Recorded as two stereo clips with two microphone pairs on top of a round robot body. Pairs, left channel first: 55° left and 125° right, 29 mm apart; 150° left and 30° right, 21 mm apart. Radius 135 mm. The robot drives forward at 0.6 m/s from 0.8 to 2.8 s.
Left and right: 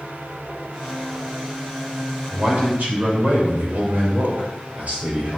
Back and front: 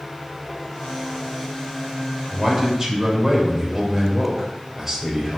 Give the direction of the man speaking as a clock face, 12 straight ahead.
3 o'clock.